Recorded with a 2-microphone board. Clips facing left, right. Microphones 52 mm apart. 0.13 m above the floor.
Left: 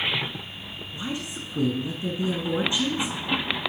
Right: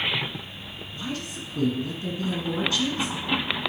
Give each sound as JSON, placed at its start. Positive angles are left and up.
{"t": 0.9, "sound": "a woman speaking", "side_deg": 20, "distance_m": 1.7}